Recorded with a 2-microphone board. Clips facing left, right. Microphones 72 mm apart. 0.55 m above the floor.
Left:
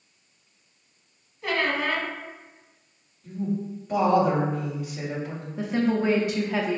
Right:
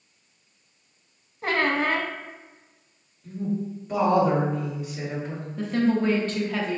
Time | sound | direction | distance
1.4 | a squeak | 45° right (ahead or behind) | 0.5 m
3.2 | a woman speaking | centre (ahead or behind) | 1.9 m
5.6 | a woman speaking | 15° left (ahead or behind) | 0.6 m